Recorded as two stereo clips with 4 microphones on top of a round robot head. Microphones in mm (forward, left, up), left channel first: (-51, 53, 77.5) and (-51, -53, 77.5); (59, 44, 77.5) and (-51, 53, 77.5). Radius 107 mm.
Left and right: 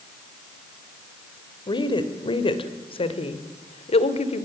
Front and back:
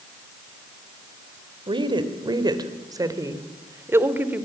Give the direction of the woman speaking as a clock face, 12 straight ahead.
8 o'clock.